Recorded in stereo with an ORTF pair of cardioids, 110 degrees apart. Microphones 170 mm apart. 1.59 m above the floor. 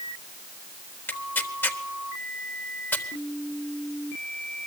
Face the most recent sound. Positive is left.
turn(degrees=10)